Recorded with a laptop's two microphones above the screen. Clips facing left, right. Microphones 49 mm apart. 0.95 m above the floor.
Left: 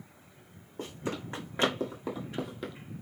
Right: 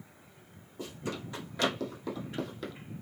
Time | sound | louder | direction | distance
0.8 | running footsteps | left 2 dB | 45° left (ahead or behind) | 2.5 m